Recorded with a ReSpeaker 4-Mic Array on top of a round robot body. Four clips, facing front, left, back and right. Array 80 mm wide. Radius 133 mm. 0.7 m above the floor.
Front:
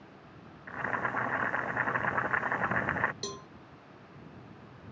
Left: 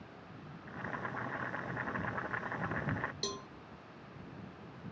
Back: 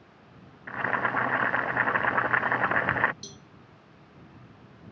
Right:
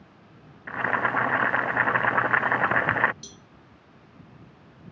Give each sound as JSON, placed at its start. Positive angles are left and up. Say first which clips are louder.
{"t": 0.7, "sound": "boiling", "louder": "right 16 dB, back 5 dB", "azimuth_deg": -110}
{"t": 3.2, "sound": "a cowbell", "louder": "left 8 dB, front 8 dB", "azimuth_deg": 35}